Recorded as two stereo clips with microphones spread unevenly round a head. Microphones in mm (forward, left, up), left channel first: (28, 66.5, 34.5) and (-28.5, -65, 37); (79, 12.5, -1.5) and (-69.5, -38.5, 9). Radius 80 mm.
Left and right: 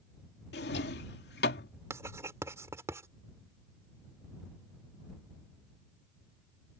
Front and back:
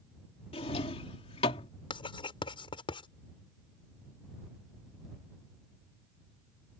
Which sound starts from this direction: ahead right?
Writing, at 1.9 s.